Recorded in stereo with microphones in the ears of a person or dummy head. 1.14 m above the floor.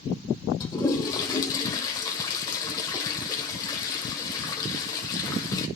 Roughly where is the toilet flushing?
Centre.